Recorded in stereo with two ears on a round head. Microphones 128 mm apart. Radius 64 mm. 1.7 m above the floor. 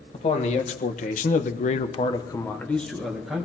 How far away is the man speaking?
About 1.8 m.